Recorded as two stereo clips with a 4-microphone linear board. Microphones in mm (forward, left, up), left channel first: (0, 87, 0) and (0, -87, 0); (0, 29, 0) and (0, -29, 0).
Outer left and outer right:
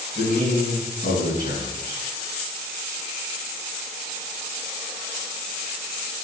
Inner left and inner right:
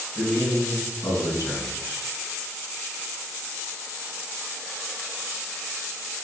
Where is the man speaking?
60° left (ahead or behind), 3.5 m.